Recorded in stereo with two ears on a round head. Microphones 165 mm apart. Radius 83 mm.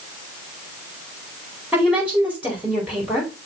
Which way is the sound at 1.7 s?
10° right (ahead or behind).